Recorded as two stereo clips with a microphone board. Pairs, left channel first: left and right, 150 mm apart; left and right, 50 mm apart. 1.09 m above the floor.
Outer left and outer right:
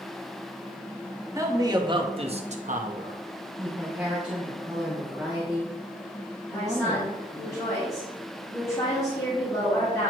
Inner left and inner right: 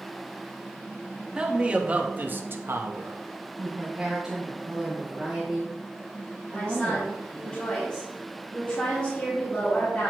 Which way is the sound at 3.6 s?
10° right (ahead or behind).